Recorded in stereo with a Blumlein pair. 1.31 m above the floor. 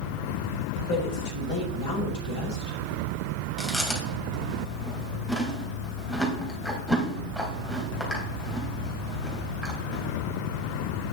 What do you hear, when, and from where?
0.9 s a woman speaking: 45° left, 6 m
3.6 s chewing: 5° left, 3 m